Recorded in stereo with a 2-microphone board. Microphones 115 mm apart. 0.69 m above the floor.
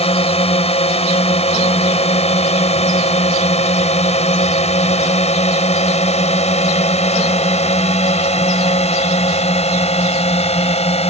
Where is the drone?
60° left (ahead or behind).